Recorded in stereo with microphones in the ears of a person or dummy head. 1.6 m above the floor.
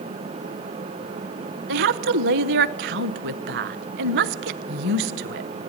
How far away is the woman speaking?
About 0.9 m.